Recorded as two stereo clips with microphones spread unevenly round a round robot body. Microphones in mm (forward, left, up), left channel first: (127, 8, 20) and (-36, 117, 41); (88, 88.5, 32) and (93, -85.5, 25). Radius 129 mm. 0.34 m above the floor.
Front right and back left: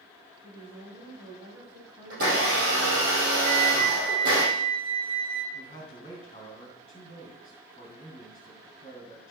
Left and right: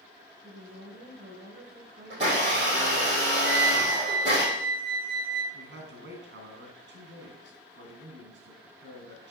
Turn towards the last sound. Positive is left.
turn(degrees=-100)